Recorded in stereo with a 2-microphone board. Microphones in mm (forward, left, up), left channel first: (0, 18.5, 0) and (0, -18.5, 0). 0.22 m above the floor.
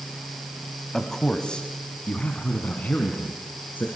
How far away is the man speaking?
About 1.5 m.